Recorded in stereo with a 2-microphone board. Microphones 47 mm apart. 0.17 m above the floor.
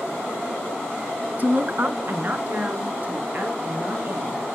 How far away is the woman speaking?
About 1.2 m.